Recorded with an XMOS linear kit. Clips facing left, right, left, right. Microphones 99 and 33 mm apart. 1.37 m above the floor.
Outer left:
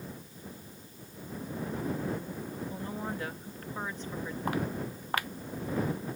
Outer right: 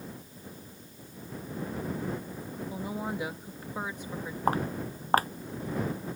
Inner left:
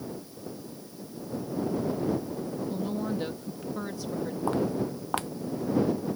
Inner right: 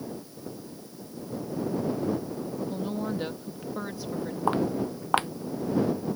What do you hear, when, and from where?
2.7 s a woman speaking: 10° right (ahead or behind)
4.5 s footsteps: 40° right (ahead or behind)